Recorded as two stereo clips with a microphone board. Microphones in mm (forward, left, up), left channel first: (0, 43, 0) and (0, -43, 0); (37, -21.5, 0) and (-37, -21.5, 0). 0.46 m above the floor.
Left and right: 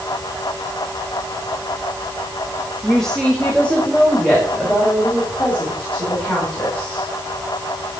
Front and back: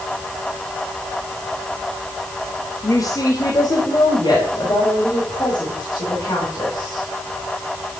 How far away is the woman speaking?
About 1.4 m.